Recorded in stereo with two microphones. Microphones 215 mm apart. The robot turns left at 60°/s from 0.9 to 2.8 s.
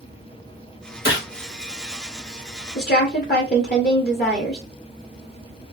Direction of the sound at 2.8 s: 50° left (ahead or behind).